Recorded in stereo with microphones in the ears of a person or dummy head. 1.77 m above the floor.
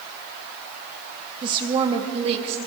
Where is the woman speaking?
25° right (ahead or behind), 2.5 m; by 2.6 s 35° right (ahead or behind), 3 m.